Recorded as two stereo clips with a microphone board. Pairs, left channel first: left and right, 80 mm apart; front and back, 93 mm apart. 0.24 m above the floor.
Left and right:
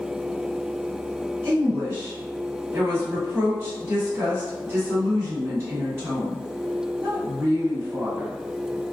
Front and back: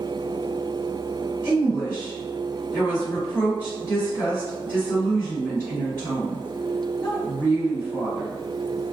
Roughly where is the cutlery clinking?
No cutlery clinking in this recording.